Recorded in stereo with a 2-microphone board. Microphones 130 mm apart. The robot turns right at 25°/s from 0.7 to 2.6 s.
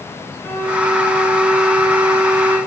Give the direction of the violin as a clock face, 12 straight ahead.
7 o'clock.